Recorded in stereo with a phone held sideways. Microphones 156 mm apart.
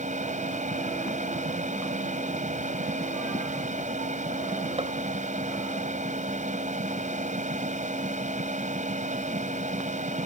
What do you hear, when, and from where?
0.0 s a machine running: 55° right (ahead or behind)
4.8 s a gunshot: 40° right (ahead or behind)